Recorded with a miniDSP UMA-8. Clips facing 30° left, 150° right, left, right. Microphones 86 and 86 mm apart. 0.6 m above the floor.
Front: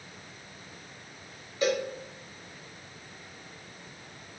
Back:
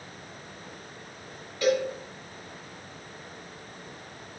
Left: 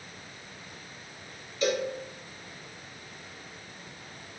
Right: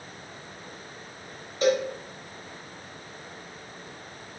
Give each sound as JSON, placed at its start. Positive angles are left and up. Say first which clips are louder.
{"t": 1.6, "sound": "a cowbell", "louder": "back 3 dB, right 5 dB", "azimuth_deg": -40, "distance_m": 0.9}